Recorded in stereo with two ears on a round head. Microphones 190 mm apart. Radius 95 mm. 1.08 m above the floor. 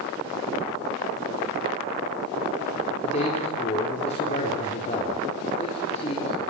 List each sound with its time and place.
3.0 s a man speaking: 30° left (ahead or behind), 4 m